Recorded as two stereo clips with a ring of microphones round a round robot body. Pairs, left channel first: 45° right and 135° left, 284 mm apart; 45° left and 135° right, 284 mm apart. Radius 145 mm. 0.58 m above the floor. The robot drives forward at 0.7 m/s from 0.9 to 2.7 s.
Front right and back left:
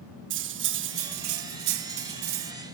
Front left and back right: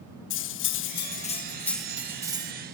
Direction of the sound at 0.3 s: 90° left.